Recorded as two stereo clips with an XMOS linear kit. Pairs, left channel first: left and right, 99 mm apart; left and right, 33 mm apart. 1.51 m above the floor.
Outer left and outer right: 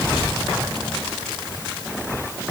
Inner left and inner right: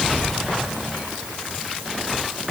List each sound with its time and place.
Only background noise.